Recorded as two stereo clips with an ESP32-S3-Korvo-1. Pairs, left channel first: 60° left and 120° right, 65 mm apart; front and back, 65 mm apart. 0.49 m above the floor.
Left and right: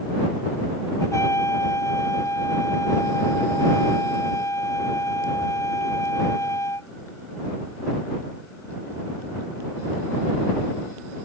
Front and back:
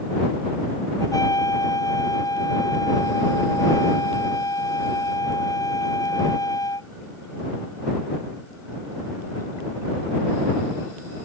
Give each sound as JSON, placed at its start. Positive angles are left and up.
{"t": 1.0, "sound": "a trumpet", "azimuth_deg": 20}